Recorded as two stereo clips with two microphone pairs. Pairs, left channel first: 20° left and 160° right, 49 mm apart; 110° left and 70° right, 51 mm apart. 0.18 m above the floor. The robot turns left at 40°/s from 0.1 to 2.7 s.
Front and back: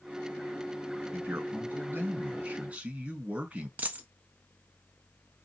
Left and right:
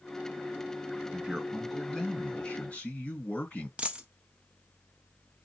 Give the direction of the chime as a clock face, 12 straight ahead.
I don't hear a chime.